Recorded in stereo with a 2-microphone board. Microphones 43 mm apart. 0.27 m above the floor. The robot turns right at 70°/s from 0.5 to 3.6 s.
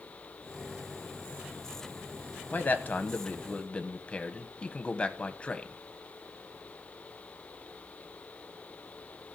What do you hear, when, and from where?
2.5 s a man speaking: 60° left, 1.2 m; by 5.8 s 140° left, 1.2 m